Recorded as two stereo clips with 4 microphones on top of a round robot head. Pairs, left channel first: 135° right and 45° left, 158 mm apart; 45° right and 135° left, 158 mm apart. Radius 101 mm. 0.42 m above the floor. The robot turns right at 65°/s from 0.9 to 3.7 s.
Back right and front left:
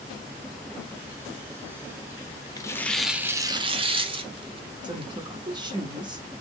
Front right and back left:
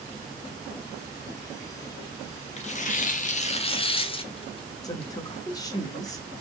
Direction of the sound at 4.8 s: 5° left.